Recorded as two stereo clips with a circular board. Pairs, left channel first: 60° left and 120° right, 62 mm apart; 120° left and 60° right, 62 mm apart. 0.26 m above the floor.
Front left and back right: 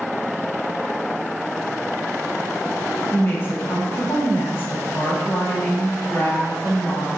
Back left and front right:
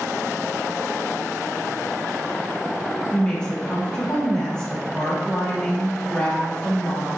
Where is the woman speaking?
50° left, 1.8 m.